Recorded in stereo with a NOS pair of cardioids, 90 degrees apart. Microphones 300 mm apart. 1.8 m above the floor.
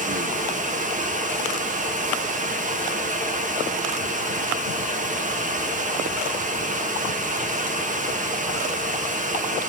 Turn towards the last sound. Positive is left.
turn(degrees=-25)